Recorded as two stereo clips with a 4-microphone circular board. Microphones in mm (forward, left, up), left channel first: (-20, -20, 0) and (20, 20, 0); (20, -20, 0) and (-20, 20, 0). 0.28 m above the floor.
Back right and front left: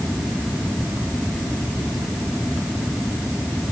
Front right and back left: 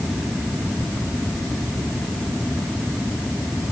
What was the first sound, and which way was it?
Only background noise.